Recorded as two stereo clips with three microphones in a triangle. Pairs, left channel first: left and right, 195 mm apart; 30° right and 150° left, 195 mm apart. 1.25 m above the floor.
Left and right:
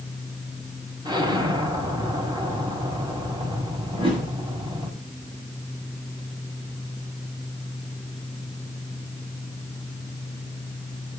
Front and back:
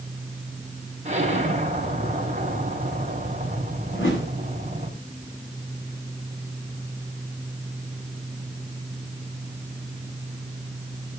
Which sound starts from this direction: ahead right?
A whoosh, at 3.9 s.